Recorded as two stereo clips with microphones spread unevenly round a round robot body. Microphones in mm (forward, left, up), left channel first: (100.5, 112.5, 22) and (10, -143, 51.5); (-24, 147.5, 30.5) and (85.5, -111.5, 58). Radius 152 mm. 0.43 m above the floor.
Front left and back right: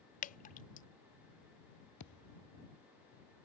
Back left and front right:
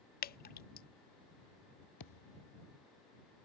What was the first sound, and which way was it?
Dripping, 95° left.